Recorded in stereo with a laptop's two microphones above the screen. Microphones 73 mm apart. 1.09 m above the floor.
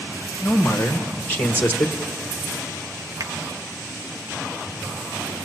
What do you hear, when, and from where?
0.4 s a man speaking: 25° left (ahead or behind), 1.2 m
3.2 s a finger snap: 55° right (ahead or behind), 0.6 m